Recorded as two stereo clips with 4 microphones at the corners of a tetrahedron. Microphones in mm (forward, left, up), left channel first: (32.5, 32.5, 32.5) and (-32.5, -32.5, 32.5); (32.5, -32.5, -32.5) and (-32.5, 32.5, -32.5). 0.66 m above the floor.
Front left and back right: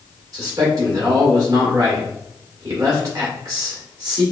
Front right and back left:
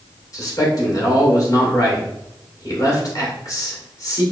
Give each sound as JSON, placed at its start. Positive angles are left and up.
{"t": 0.3, "sound": "a man speaking", "azimuth_deg": -90, "distance_m": 2.0}